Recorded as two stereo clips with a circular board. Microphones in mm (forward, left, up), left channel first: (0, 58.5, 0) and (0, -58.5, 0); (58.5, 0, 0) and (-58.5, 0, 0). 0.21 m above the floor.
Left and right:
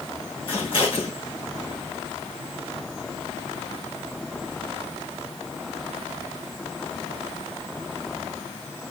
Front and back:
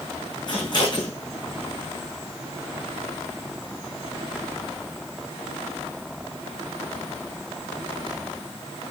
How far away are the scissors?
About 5.5 m.